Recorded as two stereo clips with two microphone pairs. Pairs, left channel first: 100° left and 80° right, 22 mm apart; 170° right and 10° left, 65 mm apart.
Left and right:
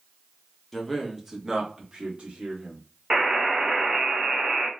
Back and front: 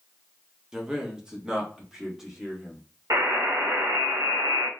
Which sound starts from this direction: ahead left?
A man speaking, at 0.7 s.